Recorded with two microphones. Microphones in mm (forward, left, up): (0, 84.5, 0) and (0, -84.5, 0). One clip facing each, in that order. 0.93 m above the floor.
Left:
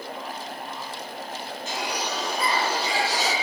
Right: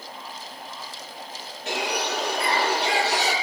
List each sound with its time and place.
1.7 s a bird: 65° right (ahead or behind), 8 m